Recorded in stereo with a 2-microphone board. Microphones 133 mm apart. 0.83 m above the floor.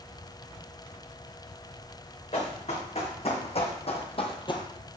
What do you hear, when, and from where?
2.3 s running footsteps: 50° left (ahead or behind), 3.5 m; by 4.7 s 30° left (ahead or behind), 0.9 m